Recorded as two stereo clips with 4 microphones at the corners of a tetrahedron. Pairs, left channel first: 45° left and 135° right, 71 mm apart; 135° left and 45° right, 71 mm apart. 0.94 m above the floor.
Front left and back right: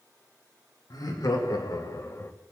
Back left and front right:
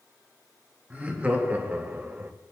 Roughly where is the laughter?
Ahead left.